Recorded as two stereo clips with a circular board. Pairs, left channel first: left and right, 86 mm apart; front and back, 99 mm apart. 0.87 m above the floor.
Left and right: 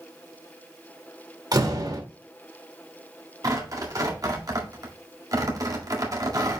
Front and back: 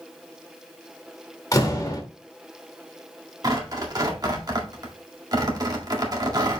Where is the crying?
No crying in this recording.